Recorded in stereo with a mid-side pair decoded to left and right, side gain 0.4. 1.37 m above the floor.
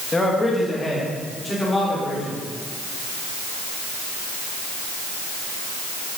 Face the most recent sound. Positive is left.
turn(degrees=15)